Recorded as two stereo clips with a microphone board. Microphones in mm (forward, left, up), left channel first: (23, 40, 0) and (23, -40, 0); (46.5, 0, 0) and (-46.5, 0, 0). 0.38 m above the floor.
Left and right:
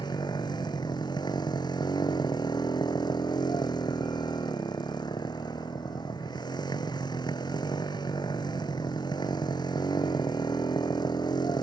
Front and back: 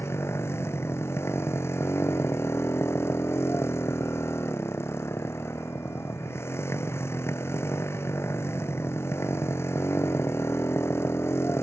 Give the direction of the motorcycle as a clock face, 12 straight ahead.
10 o'clock.